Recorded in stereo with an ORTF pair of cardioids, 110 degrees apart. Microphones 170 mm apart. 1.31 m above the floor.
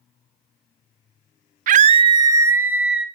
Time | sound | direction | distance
1.7 | a scream | 55° right | 0.5 m